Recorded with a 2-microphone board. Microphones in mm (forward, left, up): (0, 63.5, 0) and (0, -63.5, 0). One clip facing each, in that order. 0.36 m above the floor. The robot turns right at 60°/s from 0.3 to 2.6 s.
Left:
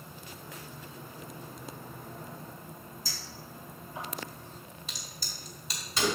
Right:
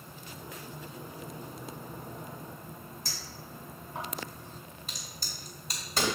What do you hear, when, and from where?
3.0 s a clink: 60° right (ahead or behind), 2.5 m
4.9 s a crack: 50° right (ahead or behind), 2 m